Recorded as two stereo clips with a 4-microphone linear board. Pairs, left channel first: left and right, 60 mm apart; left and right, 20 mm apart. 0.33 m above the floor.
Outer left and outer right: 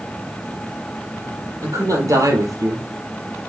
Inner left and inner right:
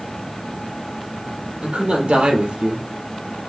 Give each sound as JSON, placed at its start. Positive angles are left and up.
{"t": 1.6, "sound": "a man speaking", "side_deg": -70, "distance_m": 7.5}